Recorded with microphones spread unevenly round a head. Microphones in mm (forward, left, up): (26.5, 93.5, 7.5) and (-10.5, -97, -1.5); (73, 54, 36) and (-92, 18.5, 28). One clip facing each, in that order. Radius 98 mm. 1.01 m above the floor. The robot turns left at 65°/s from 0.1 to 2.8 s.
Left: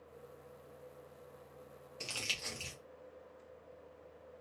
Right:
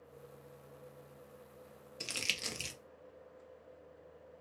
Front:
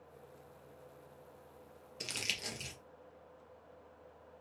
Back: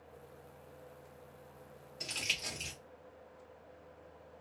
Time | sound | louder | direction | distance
2.0 | crumpling | right 2 dB, front 1 dB | 25° right | 0.5 m